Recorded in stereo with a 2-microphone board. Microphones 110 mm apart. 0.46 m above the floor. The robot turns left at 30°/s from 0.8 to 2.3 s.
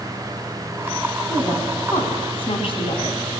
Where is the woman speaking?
40° left (ahead or behind), 4.5 m; by 3.3 s 65° left (ahead or behind), 4.5 m.